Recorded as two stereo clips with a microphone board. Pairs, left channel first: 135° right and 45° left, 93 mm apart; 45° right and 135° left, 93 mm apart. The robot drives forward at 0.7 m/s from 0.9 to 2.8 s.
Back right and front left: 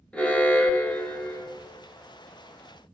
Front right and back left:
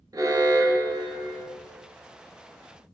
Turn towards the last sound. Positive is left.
turn(degrees=170)